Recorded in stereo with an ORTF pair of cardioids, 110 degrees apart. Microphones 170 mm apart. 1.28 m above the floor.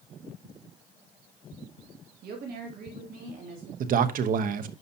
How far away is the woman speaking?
About 2 m.